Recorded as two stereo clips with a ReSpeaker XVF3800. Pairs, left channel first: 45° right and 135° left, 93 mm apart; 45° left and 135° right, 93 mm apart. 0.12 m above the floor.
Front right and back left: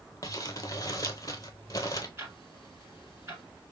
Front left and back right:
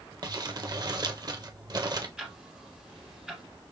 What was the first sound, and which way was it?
Crumpling, 95° right.